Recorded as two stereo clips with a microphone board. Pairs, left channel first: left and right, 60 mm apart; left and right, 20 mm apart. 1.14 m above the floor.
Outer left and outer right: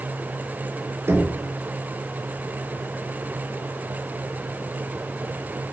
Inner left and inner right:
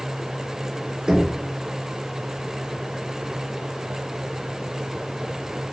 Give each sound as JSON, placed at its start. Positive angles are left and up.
{"t": 1.1, "sound": "knocking", "side_deg": -40, "distance_m": 2.5}